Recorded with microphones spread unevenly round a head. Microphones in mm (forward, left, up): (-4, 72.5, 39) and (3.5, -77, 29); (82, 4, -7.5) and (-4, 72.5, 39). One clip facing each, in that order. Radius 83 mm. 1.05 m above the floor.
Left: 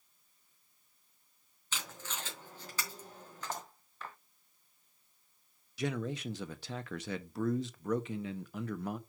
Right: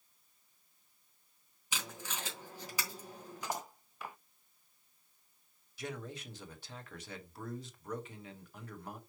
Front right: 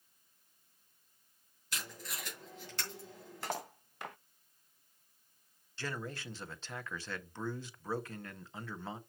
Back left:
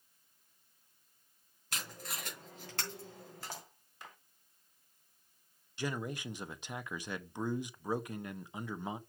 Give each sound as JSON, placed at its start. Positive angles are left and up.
{"t": 1.7, "sound": "tape being pulled", "azimuth_deg": -165, "distance_m": 3.0}
{"t": 3.4, "sound": "cutlery clinking", "azimuth_deg": -5, "distance_m": 0.5}
{"t": 5.8, "sound": "a man speaking", "azimuth_deg": 65, "distance_m": 1.1}